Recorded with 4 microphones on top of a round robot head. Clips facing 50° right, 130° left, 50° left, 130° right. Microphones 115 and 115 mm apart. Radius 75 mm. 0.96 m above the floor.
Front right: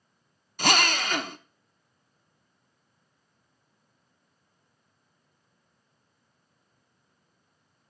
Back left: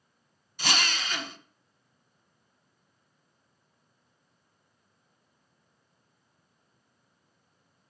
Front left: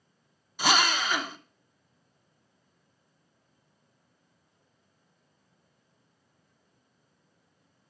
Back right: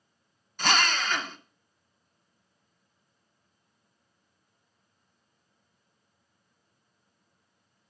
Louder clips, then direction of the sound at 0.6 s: Front right 7 dB, front left 1 dB; 30° right.